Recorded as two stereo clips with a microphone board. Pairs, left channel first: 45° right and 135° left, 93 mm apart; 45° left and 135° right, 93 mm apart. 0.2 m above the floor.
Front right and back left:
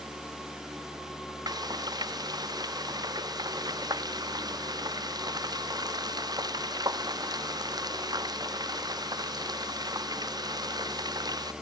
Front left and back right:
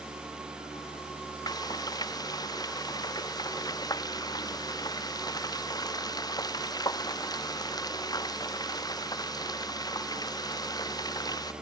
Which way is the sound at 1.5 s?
90° left.